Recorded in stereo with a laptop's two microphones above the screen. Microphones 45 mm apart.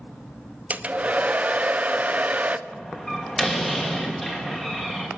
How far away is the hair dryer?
About 0.8 m.